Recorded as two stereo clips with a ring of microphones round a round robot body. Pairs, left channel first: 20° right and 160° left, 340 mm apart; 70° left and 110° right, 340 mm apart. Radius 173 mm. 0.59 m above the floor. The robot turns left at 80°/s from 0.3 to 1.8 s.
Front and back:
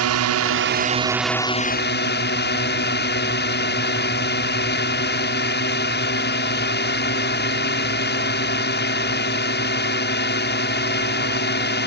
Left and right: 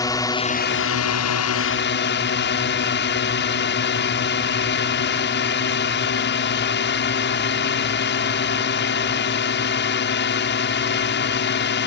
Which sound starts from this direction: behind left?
A drone, at 0.0 s.